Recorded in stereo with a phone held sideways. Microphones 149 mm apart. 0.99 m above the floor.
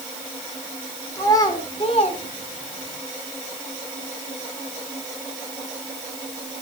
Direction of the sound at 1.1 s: 20° left (ahead or behind).